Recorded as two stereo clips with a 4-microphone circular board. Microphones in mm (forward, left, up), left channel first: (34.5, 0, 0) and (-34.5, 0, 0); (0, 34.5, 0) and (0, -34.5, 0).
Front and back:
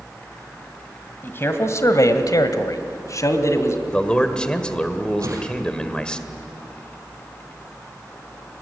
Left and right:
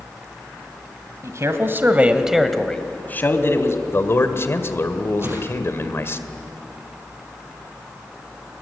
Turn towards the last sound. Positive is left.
turn(degrees=-145)